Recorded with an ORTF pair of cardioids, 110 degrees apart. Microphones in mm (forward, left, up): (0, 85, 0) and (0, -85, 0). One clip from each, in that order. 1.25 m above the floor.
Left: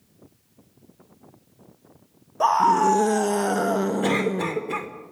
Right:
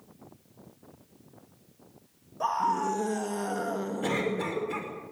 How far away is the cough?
About 4.5 m.